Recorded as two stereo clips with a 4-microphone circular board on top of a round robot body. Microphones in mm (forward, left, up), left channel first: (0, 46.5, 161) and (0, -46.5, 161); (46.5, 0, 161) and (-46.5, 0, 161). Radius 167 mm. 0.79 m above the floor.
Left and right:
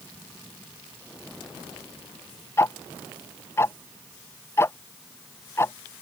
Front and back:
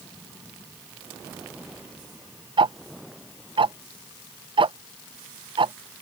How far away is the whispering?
No whispering in this recording.